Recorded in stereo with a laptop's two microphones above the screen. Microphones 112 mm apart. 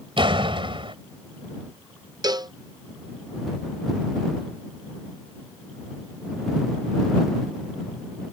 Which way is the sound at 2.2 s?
35° right (ahead or behind).